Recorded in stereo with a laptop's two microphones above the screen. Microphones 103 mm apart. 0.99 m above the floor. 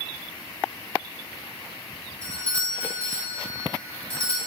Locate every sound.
2.2 s a doorbell: 10° left (ahead or behind), 2.5 m